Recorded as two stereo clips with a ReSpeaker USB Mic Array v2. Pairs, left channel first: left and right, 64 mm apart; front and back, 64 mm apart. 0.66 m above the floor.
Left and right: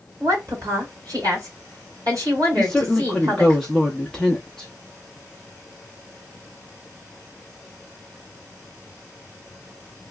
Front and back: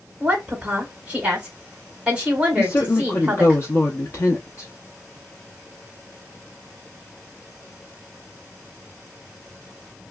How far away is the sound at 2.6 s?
About 0.7 m.